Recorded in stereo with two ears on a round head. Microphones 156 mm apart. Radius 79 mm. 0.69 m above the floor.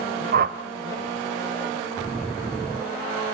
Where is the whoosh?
50° right (ahead or behind), 0.7 m.